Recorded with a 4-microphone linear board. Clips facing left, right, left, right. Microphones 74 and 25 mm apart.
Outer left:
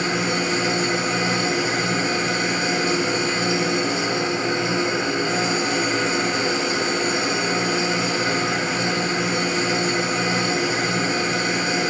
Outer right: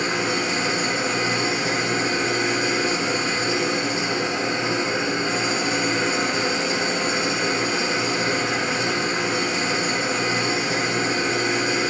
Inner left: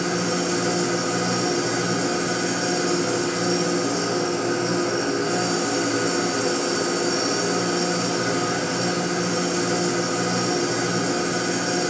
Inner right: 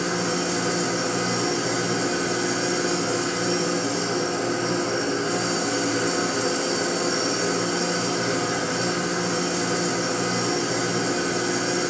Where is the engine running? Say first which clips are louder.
Outer left 1 dB, inner left 1 dB; 30° left (ahead or behind), 2.0 m.